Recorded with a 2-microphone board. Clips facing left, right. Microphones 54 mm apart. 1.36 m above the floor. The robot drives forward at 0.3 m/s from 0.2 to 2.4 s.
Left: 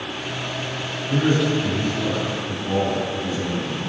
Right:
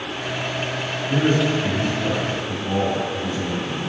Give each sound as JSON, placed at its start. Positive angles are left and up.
{"t": 1.1, "sound": "a man speaking", "side_deg": -35, "distance_m": 2.5}